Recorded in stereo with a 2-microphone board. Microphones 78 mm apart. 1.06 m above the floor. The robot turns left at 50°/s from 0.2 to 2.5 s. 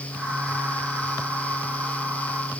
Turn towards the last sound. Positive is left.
No sound to turn to.